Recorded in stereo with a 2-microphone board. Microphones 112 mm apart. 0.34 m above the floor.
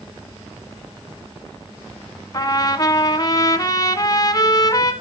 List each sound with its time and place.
2.3 s a trumpet: 35° left (ahead or behind), 1.5 m